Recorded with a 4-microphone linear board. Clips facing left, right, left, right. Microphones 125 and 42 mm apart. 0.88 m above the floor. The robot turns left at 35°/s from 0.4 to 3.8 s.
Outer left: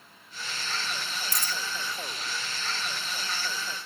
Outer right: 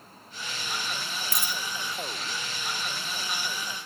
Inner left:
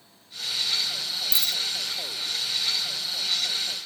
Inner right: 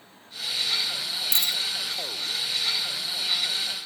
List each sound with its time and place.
1.3 s a dropped coin: 60° right (ahead or behind), 0.6 m; by 1.6 s 55° right (ahead or behind), 0.6 m